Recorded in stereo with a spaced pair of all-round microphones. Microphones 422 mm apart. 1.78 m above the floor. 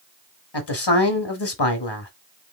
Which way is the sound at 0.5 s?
70° left (ahead or behind).